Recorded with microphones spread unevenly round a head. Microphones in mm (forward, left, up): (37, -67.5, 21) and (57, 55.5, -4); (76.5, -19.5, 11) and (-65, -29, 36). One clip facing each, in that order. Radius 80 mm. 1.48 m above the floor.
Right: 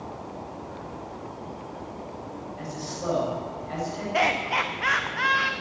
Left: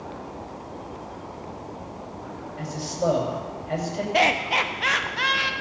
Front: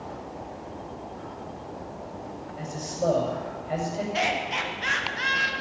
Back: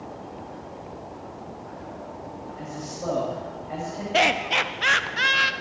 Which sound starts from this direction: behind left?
Laughter, at 4.1 s.